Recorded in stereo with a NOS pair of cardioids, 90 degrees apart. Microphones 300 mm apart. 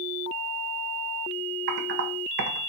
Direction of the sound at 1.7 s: 45° right.